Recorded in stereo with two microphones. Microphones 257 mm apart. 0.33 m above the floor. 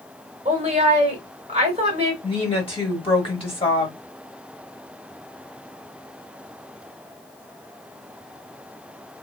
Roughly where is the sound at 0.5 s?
Right.